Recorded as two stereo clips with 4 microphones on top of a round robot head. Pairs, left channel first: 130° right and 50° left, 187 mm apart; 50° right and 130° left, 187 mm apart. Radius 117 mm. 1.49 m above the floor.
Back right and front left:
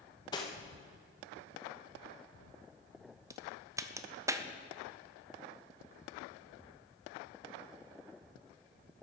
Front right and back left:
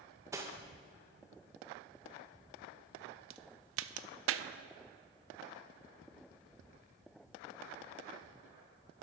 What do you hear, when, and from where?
0.3 s cutlery clinking: 175° right, 0.6 m
3.3 s a crack: 125° left, 0.5 m